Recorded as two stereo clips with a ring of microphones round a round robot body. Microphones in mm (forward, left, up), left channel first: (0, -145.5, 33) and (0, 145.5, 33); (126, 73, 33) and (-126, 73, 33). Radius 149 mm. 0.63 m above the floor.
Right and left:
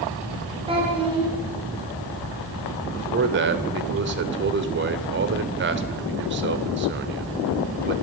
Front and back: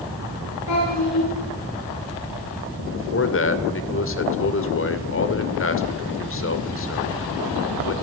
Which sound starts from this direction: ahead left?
A man speaking, at 2.9 s.